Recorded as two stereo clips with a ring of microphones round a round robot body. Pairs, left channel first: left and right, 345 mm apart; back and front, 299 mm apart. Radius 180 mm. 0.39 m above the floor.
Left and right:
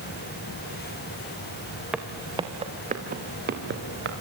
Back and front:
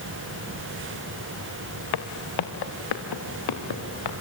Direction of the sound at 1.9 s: 175° right.